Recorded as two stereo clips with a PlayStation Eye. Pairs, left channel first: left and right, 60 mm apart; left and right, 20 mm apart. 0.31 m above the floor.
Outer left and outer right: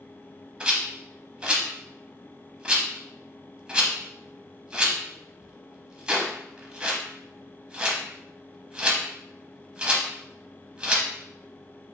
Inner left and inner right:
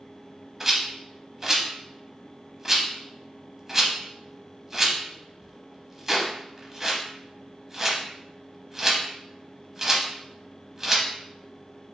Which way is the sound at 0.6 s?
20° right (ahead or behind).